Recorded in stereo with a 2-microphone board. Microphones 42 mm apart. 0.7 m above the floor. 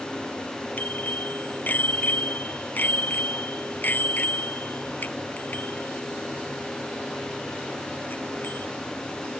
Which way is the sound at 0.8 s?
45° left (ahead or behind).